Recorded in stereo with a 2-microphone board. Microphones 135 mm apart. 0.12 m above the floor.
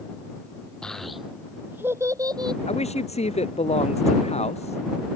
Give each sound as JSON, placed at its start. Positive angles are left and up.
{"t": 0.8, "sound": "a child speaking", "side_deg": 5}
{"t": 2.7, "sound": "a man speaking", "side_deg": 55}